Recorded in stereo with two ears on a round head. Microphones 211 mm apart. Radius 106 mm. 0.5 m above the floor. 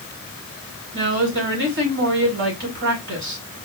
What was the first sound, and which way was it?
A woman speaking, 50° right (ahead or behind).